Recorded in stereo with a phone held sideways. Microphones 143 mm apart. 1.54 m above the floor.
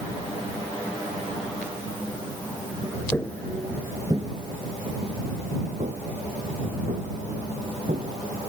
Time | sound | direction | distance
3.1 | footsteps | 20° left (ahead or behind) | ?